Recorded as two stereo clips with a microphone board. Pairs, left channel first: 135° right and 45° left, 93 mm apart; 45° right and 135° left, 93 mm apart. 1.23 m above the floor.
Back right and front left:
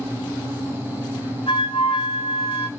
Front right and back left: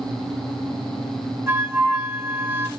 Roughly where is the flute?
Behind.